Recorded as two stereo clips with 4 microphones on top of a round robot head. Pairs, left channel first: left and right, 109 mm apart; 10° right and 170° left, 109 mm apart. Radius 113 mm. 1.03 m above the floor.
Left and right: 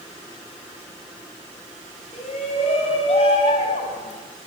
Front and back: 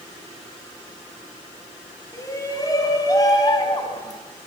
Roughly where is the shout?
Ahead left.